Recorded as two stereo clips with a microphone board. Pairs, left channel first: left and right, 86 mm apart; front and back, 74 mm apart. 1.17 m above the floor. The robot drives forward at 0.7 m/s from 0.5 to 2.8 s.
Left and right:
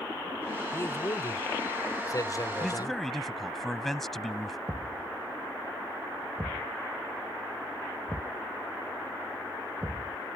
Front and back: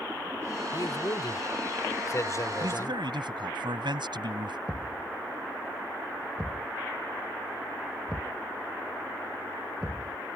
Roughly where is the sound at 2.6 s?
Behind.